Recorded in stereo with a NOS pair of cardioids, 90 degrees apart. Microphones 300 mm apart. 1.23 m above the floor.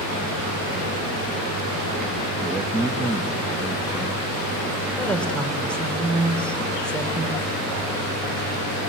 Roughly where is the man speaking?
Ahead.